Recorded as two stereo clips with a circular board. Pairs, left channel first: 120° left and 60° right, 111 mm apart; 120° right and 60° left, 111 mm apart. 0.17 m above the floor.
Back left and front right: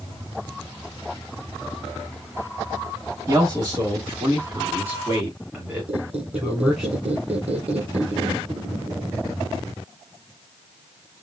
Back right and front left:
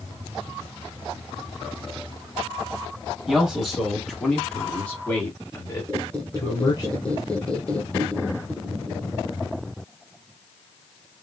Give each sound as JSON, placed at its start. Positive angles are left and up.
{"t": 3.3, "sound": "a man speaking", "azimuth_deg": -25, "distance_m": 2.0}
{"t": 5.9, "sound": "a squeak", "azimuth_deg": -40, "distance_m": 1.2}